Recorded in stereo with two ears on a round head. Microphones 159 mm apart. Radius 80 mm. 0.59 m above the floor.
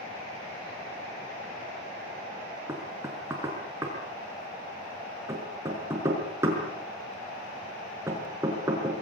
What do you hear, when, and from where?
2.7 s knocking: 15° right (ahead or behind), 5.5 m